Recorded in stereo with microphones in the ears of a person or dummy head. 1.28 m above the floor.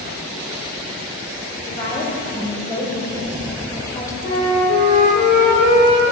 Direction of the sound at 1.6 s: 20° left (ahead or behind).